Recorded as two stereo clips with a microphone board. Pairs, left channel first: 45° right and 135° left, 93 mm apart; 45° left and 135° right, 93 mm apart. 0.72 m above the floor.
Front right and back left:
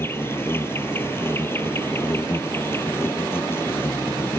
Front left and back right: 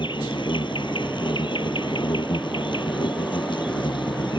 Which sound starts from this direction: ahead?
An insect, at 0.0 s.